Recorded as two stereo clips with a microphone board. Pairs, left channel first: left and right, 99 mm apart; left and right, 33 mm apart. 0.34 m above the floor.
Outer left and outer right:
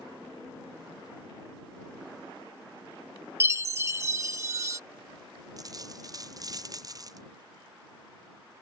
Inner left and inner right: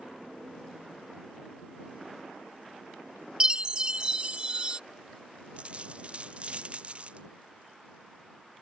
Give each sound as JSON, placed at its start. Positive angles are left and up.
{"t": 3.4, "sound": "a chime", "side_deg": -30}
{"t": 5.6, "sound": "a dropped coin", "side_deg": -40}